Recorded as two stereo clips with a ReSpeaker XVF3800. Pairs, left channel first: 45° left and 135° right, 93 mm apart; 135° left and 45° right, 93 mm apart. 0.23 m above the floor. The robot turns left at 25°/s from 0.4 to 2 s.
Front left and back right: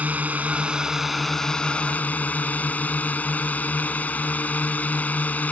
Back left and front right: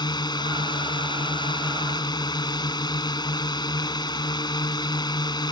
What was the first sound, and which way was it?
A drone, 155° left.